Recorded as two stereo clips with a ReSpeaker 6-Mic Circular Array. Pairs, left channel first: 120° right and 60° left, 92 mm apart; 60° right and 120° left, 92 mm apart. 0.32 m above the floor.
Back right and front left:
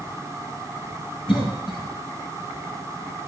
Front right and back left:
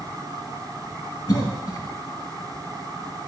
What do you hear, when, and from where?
1.3 s a cough: 110° right, 3 m